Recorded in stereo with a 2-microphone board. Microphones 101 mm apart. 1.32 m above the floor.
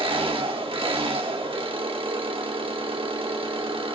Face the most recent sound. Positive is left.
turn(degrees=-70)  # may be behind; listen again after turning